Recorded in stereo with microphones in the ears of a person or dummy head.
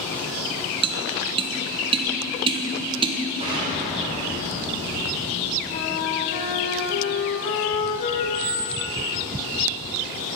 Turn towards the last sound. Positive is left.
turn(degrees=-45)  # may be behind; listen again after turning